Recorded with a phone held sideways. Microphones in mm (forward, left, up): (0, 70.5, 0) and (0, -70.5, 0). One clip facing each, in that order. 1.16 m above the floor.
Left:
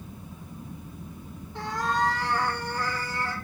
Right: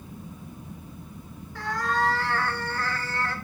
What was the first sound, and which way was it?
A cat meowing, 25° left (ahead or behind).